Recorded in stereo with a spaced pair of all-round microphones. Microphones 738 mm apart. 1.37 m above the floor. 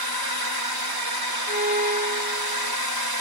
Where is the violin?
70° left (ahead or behind).